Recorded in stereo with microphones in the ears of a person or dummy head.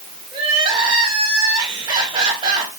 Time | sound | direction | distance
0.3 | crying | 30° right (ahead or behind) | 3.5 m